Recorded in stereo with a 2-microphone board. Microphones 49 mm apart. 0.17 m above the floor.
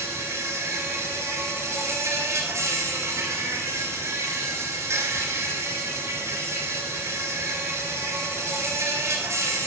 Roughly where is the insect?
Right.